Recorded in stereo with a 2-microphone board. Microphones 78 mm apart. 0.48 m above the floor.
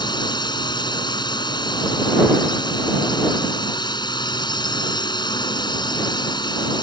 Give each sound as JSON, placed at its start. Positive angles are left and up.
{"t": 0.0, "sound": "a drone", "side_deg": 60}